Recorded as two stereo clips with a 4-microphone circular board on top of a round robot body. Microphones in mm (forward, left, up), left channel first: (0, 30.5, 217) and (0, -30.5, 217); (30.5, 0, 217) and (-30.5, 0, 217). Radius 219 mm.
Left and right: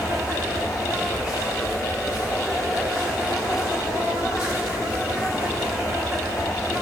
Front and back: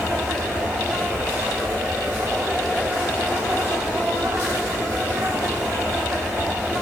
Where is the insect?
120° left, 1.2 m.